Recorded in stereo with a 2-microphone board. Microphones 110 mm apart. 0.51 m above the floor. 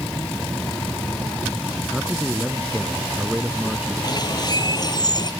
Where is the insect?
10° left (ahead or behind).